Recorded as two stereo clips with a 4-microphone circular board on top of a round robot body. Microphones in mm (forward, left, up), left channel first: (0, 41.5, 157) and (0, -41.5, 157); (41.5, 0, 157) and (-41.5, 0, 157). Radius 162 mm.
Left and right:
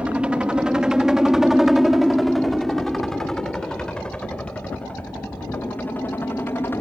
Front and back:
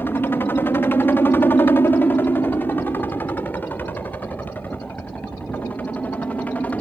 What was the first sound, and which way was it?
A helicopter, 30° right.